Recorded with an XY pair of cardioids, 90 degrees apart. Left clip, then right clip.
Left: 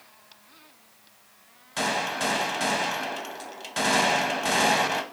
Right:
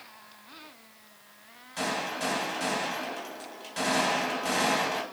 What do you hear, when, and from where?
1.8 s a gunshot: 60° left, 0.8 m